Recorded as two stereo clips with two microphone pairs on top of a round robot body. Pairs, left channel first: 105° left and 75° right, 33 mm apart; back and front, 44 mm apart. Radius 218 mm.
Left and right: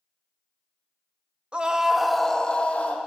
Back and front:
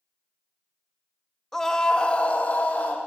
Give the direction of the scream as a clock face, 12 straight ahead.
3 o'clock.